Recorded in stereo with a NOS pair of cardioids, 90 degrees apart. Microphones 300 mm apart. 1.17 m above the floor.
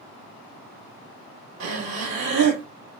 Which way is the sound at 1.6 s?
65° right.